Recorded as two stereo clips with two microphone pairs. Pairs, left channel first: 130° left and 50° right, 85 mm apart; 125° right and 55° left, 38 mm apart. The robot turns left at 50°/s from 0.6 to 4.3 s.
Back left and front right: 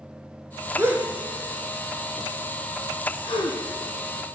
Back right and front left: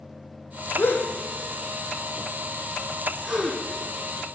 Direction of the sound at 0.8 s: 105° right.